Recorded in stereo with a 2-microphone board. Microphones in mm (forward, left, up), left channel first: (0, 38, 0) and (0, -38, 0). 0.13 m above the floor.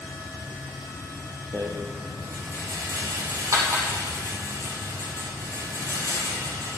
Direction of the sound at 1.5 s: 50° right (ahead or behind).